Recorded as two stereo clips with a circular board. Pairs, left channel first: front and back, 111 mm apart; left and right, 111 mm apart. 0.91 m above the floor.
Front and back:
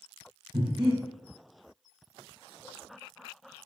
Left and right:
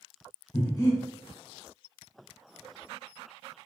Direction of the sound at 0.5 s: 140° left.